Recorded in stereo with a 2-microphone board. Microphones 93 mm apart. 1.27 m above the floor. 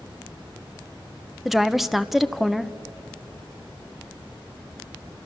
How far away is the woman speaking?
About 0.9 m.